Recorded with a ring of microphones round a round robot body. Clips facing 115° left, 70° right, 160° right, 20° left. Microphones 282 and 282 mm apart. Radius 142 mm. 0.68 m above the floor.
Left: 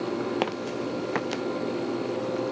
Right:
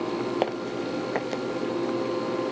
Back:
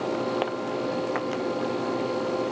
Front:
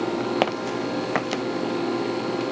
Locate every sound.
0.4 s footsteps: 45° left; by 1.4 s 50° left